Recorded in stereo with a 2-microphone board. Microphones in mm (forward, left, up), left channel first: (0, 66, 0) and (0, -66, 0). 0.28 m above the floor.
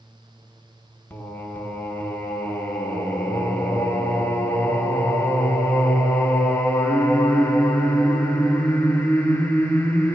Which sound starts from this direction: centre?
Singing, at 1.1 s.